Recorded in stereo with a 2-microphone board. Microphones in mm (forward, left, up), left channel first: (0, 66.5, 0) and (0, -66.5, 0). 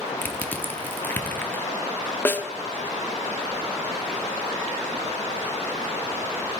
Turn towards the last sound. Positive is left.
turn(degrees=15)  # may be behind; listen again after turning